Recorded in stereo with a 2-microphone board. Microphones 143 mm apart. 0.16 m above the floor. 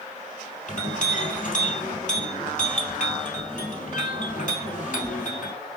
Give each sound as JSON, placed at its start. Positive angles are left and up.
{"t": 0.7, "sound": "a clink", "side_deg": 60, "distance_m": 2.5}